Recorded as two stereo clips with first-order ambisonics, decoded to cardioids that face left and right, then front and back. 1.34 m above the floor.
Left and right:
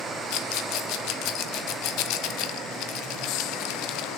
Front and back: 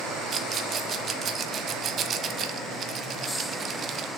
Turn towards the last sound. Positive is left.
turn(degrees=120)